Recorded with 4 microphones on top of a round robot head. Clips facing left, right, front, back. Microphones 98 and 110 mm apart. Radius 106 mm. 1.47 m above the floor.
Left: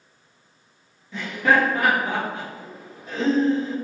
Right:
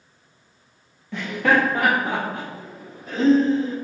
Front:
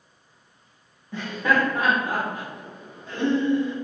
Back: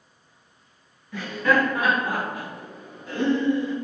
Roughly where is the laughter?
Ahead right.